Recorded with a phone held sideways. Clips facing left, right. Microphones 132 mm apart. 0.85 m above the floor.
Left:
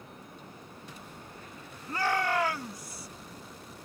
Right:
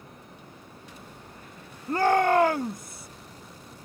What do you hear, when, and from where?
1.9 s a shout: 45° right (ahead or behind); by 3.1 s 50° right (ahead or behind)